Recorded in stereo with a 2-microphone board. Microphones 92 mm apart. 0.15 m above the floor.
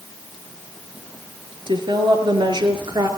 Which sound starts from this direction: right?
A woman speaking, at 1.7 s.